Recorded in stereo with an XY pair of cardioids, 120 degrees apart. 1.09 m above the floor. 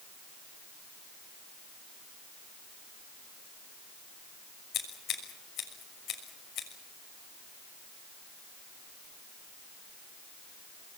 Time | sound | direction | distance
4.7 | scissors | 60° left | 6 m